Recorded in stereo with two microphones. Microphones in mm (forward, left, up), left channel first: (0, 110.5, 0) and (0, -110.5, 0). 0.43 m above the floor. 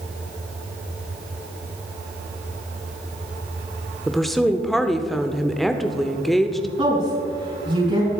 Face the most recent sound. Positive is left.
turn(degrees=-30)  # may be behind; listen again after turning